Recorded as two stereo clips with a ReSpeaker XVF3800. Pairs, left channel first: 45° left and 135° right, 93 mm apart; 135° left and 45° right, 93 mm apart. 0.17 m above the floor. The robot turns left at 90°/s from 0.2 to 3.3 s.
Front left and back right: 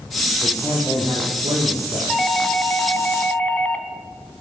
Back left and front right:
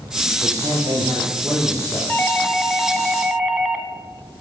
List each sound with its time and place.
0.4 s a man speaking: 30° right, 7 m; by 2.0 s 170° right, 7 m
2.1 s a doorbell: 120° left, 1.8 m; by 3.9 s 10° left, 1.8 m